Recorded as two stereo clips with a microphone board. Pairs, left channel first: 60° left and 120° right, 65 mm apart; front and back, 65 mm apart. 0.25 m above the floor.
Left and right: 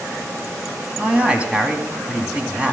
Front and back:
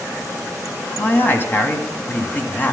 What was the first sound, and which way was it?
A man speaking, 50° right.